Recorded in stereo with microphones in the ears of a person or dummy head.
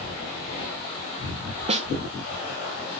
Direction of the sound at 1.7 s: 40° right (ahead or behind).